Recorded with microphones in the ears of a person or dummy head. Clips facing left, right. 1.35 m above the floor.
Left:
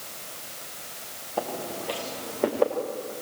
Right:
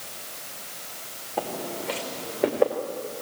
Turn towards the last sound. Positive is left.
turn(degrees=0)  # may be behind; listen again after turning